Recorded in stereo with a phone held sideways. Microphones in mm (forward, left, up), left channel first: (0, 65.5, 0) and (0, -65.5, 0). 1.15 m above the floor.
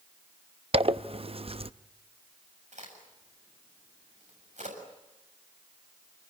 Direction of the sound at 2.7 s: 65° right (ahead or behind).